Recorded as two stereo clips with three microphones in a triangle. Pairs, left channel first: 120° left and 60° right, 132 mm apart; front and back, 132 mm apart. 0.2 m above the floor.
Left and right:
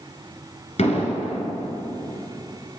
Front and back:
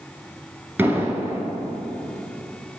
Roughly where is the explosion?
Left.